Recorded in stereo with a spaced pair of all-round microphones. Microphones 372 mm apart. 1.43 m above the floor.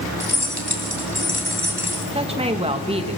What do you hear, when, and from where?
0.2 s keys jangling: 85° left, 3.5 m
2.1 s a woman speaking: 15° right (ahead or behind), 2 m